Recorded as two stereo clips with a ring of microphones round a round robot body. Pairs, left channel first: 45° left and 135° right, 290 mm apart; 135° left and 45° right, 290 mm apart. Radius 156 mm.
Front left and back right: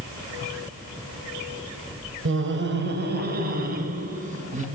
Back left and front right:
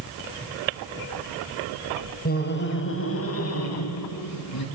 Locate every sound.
2.2 s laughter: 170° right, 2.5 m; by 4.7 s 160° left, 5 m